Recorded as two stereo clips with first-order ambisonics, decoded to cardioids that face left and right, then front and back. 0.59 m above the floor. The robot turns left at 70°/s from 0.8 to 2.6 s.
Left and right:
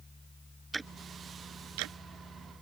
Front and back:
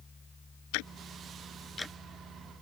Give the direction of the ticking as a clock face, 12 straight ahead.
12 o'clock.